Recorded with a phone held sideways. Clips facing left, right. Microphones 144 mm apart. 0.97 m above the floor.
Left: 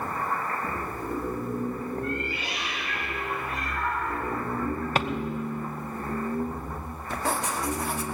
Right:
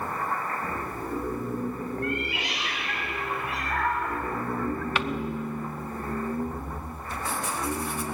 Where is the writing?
75° left (ahead or behind), 2.0 m.